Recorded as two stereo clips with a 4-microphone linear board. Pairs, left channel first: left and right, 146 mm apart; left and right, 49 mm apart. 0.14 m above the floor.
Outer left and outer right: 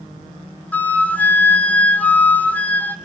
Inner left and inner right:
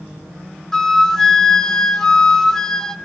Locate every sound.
0.7 s a flute: 10° left (ahead or behind), 0.9 m